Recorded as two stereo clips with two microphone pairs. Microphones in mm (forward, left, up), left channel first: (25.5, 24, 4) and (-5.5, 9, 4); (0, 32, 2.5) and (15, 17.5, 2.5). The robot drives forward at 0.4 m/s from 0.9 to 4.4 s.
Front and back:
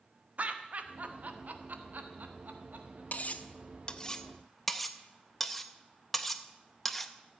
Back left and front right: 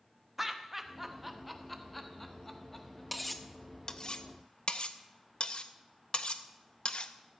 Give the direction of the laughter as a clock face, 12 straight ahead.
4 o'clock.